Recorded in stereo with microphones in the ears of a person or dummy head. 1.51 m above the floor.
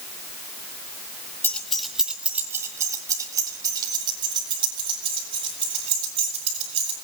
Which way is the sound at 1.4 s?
15° left (ahead or behind).